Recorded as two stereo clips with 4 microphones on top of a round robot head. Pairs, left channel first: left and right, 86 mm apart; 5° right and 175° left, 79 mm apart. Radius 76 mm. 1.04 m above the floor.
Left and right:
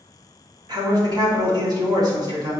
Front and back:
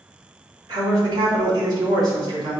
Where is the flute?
I don't hear a flute.